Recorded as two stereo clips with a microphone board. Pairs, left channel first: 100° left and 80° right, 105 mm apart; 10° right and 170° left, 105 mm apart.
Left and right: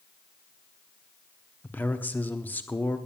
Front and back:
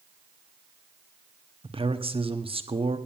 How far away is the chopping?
I don't hear chopping.